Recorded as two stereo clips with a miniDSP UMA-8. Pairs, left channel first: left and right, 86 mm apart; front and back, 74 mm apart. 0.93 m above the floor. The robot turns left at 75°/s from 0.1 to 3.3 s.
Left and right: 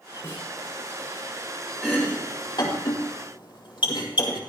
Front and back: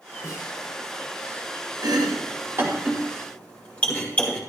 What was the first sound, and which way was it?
A snare drum, 40° left.